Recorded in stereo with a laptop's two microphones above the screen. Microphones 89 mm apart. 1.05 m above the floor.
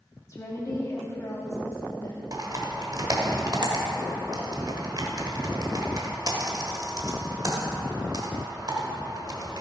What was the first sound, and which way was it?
A woman speaking, 35° left (ahead or behind).